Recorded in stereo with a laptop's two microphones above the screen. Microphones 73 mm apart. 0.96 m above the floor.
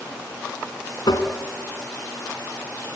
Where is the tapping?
70° left (ahead or behind), 2 m.